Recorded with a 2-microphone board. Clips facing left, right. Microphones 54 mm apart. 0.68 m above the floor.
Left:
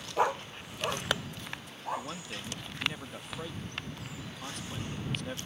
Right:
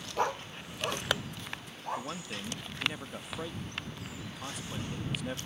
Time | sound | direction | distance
0.2 | a dog barking | 15° left (ahead or behind) | ?
2.0 | a man speaking | 5° right (ahead or behind) | ?